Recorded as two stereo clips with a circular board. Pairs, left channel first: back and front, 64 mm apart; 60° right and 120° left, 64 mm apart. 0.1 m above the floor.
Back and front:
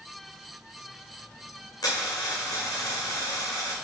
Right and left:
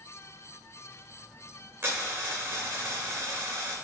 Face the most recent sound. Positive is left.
turn(degrees=175)